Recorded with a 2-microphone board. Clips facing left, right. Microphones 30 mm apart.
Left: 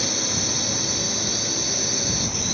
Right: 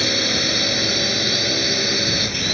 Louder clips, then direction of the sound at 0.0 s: Right 7 dB; 45° right (ahead or behind).